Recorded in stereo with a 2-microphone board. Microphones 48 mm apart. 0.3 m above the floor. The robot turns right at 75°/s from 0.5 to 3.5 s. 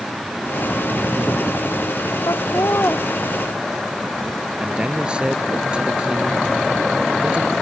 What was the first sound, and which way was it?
Laughter, 90° left.